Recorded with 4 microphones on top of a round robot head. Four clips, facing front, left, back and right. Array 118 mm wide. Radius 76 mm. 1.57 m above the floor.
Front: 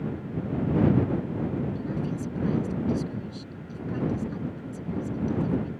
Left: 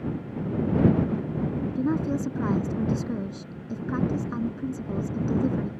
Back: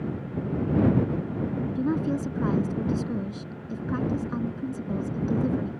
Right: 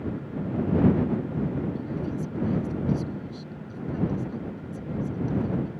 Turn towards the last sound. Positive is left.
turn(degrees=130)